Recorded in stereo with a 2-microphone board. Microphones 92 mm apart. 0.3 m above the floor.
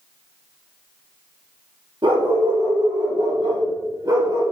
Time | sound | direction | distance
2.0 | a dog barking | 60° right (ahead or behind) | 3.5 m